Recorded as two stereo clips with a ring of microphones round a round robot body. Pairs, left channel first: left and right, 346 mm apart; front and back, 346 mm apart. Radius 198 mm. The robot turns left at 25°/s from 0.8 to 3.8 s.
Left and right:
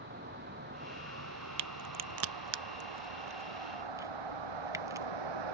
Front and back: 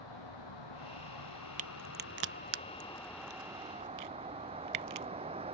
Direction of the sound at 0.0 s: 30° right.